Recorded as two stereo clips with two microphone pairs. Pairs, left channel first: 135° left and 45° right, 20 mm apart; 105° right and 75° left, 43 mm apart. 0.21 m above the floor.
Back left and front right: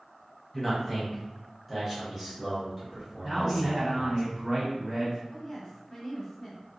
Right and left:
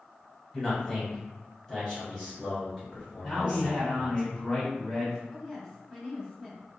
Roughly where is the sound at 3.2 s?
Ahead.